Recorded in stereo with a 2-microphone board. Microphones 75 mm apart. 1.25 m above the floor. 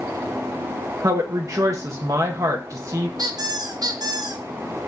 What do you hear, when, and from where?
1.0 s a woman speaking: 45° right (ahead or behind), 1.1 m
3.2 s a squeak: 60° right (ahead or behind), 0.8 m